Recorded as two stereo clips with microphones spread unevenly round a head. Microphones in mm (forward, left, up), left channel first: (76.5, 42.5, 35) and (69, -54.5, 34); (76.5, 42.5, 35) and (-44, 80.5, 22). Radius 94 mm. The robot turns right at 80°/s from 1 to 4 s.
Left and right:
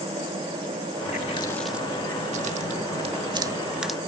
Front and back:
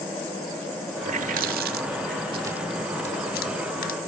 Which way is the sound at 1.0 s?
120° left.